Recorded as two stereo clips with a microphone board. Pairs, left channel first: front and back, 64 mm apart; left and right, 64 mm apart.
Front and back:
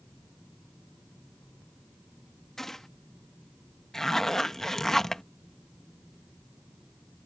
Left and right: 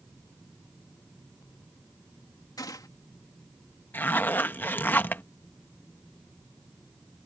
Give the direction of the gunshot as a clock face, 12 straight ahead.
9 o'clock.